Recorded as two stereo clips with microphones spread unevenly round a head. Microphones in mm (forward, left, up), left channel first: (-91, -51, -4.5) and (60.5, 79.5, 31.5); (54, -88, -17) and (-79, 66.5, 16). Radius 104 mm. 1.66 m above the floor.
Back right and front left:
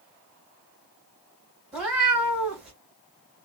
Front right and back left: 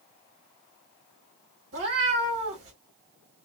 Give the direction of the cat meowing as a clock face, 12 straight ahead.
8 o'clock.